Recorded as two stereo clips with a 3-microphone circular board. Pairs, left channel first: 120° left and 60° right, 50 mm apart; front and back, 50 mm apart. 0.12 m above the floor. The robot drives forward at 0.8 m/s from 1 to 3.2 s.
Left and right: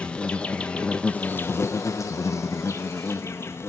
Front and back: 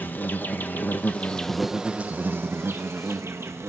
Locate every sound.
0.0 s an insect: 50° left, 0.8 m; by 3.7 s 155° left, 1.4 m